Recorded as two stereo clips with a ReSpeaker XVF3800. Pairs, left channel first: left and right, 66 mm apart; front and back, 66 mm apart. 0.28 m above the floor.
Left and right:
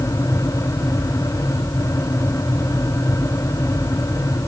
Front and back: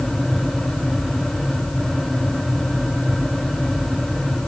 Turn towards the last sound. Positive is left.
No sound to turn to.